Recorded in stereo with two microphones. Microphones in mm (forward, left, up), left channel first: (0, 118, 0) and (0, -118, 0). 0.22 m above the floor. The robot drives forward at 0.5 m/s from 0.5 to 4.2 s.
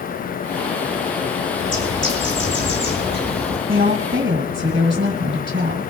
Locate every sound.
1.6 s a bird: 55° left (ahead or behind), 3.5 m; by 3.6 s 45° left (ahead or behind), 4 m
3.7 s a woman speaking: 45° right (ahead or behind), 2.0 m